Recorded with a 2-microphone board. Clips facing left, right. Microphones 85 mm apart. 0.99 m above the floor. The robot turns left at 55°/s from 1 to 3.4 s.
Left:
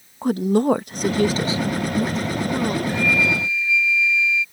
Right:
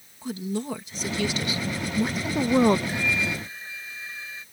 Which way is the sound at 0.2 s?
60° left.